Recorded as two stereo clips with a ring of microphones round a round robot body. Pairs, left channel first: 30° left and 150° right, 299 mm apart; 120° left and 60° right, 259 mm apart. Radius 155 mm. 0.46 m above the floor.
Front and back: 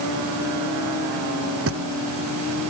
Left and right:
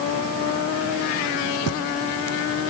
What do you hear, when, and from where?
1.7 s a thud: 165° left